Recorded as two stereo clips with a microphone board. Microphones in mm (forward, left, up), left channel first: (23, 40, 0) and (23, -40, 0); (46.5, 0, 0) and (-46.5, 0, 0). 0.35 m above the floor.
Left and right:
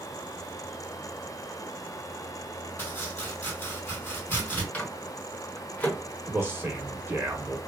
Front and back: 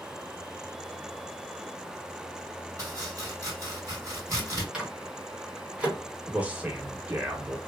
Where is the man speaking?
125° right, 0.9 m.